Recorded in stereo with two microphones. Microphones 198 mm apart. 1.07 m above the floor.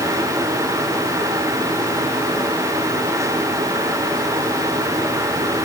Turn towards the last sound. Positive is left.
No sound to turn to.